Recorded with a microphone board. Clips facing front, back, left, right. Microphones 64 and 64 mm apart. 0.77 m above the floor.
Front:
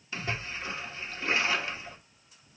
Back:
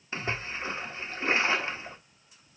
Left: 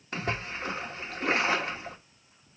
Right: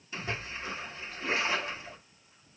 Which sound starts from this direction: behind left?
A splash, at 0.1 s.